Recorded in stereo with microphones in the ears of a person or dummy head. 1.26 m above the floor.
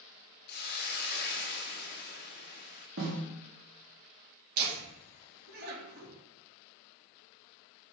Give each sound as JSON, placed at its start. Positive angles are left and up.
{"t": 0.5, "sound": "a hiss", "side_deg": 50, "distance_m": 1.0}
{"t": 3.0, "sound": "a snare drum", "side_deg": -60, "distance_m": 2.0}
{"t": 4.6, "sound": "laughter", "side_deg": -55, "distance_m": 2.5}